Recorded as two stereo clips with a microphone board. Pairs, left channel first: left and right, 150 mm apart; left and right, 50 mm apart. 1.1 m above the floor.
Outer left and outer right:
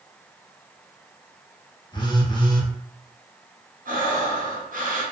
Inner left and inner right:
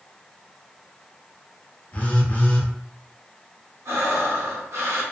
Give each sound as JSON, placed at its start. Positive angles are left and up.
{"t": 1.9, "sound": "a phone buzzing", "side_deg": 30, "distance_m": 0.6}
{"t": 3.9, "sound": "breathing", "side_deg": -65, "distance_m": 0.8}